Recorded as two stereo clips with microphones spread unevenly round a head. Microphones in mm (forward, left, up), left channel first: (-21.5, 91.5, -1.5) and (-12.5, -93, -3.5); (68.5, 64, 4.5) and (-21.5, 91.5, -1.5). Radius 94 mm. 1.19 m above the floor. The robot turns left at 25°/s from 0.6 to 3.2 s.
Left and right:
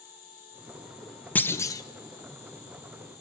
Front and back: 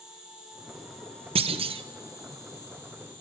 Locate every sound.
0.0 s an insect: 80° left, 8.5 m; by 3.2 s 15° left, 8.5 m
1.4 s a clunk: 175° left, 0.8 m; by 1.8 s 160° left, 0.8 m